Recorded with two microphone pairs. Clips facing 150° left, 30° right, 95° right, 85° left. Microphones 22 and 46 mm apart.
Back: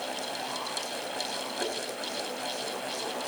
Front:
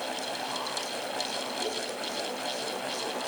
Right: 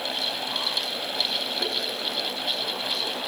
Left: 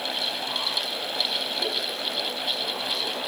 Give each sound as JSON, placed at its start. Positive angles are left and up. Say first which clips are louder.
{"t": 1.6, "sound": "tapping", "louder": "back 1 dB, even", "azimuth_deg": -165, "distance_m": 7.0}